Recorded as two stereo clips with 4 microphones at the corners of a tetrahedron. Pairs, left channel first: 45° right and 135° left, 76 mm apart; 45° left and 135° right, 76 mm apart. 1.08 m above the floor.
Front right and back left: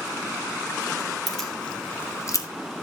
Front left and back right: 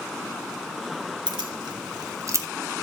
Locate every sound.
1.3 s keys jangling: 130° right, 1.9 m; by 2.5 s 80° right, 1.1 m